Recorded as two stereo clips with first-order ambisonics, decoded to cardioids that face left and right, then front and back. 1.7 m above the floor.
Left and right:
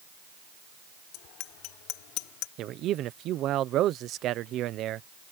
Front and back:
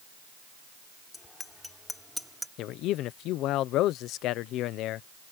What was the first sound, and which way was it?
A bicycle bell, 75° left.